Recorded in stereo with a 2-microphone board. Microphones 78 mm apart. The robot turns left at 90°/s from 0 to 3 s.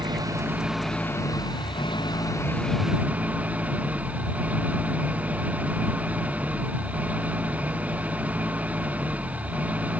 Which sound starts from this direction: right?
An engine running, at 0.0 s.